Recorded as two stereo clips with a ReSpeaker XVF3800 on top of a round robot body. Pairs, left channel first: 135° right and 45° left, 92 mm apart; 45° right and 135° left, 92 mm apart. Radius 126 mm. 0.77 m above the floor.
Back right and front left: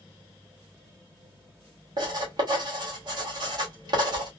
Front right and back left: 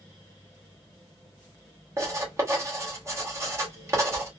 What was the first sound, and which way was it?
Writing, 80° left.